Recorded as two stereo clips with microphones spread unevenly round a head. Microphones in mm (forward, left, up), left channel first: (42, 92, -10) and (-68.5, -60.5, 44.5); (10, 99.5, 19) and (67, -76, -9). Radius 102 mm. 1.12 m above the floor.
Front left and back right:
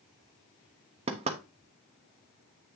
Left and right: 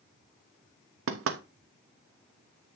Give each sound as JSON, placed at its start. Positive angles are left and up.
{"t": 1.1, "sound": "knocking", "azimuth_deg": -65, "distance_m": 1.1}